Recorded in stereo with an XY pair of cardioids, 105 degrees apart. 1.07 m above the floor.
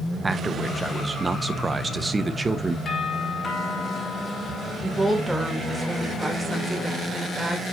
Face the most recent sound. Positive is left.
turn(degrees=-5)